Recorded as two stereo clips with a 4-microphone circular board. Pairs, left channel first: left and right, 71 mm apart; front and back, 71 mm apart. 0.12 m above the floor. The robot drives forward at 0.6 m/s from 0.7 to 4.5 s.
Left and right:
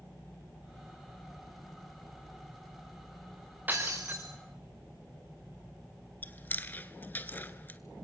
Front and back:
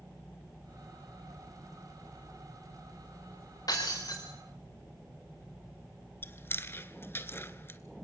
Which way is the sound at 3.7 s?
25° right.